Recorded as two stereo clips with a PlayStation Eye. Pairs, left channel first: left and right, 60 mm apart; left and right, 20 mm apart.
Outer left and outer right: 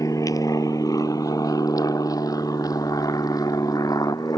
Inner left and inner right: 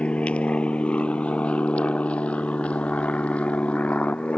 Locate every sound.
0.0 s an aircraft: 65° left (ahead or behind); by 4.4 s 80° left